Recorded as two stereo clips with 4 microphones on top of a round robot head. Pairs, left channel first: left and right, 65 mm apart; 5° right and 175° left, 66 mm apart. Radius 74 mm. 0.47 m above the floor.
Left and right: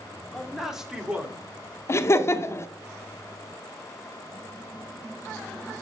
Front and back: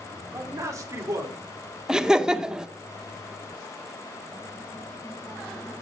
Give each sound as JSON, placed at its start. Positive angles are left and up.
{"t": 0.3, "sound": "a man speaking", "azimuth_deg": 175, "distance_m": 1.8}
{"t": 1.9, "sound": "laughter", "azimuth_deg": 100, "distance_m": 0.9}